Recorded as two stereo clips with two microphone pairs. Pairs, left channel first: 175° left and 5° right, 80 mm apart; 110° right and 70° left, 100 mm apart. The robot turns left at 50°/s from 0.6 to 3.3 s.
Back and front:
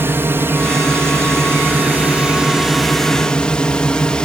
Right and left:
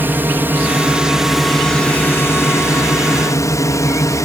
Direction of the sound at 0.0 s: 20° left.